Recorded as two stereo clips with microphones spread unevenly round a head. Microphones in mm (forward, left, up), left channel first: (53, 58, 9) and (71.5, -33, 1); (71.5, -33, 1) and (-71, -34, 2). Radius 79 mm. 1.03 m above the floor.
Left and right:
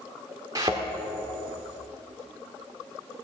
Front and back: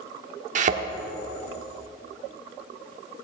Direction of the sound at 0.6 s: 150° right.